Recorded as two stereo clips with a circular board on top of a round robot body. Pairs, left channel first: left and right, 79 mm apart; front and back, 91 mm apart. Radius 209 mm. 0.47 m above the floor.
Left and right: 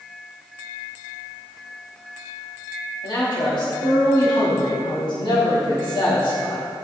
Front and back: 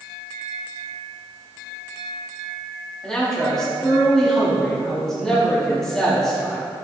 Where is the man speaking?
85° left, 3.5 m.